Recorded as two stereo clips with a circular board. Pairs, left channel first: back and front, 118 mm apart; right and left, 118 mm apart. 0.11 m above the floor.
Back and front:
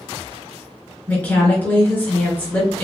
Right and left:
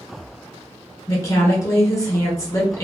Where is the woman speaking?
120° right, 1.5 m.